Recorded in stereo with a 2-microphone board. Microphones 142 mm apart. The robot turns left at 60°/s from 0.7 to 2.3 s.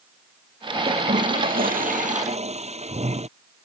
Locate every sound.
0.9 s a toilet flushing: 45° right; by 3.3 s 130° right